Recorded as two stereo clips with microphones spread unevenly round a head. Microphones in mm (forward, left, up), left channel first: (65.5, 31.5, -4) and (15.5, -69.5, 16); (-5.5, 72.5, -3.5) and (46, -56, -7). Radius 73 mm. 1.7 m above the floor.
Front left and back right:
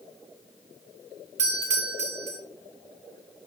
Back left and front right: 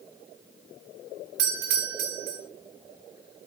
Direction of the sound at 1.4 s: 100° right.